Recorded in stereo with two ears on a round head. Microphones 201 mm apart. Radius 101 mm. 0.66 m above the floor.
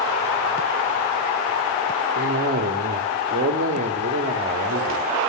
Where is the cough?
35° right (ahead or behind), 1.3 m.